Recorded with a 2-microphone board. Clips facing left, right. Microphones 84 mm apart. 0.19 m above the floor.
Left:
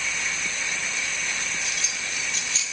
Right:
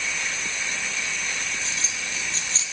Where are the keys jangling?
30° right (ahead or behind), 3.5 m.